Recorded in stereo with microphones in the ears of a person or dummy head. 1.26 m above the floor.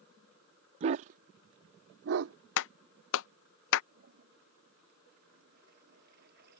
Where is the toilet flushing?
60° right (ahead or behind).